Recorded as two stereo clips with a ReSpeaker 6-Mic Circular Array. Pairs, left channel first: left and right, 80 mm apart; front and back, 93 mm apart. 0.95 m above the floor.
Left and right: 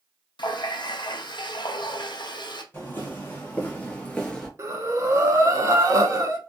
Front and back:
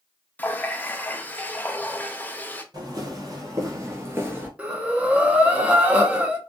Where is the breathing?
110° right, 0.7 m.